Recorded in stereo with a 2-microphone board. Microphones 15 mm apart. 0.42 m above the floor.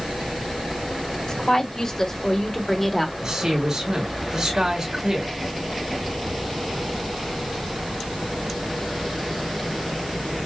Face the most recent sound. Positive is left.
turn(degrees=-65)  # may be behind; listen again after turning